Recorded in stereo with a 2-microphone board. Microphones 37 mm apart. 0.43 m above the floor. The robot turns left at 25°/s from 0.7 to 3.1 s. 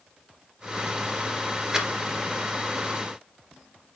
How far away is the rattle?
About 2 m.